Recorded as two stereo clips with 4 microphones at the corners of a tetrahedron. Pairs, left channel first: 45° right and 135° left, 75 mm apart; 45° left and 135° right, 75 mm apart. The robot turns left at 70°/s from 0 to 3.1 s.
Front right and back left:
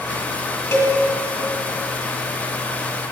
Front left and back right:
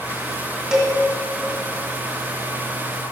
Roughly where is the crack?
No crack in this recording.